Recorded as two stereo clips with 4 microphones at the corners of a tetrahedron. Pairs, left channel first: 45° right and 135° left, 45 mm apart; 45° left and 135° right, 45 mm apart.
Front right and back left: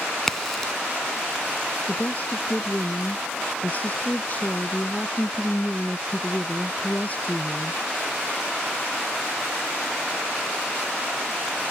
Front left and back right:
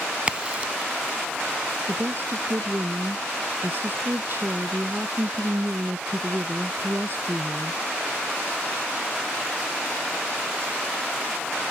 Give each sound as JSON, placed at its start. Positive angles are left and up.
{"t": 0.3, "sound": "a crack", "azimuth_deg": -115}
{"t": 1.9, "sound": "a woman speaking", "azimuth_deg": -95}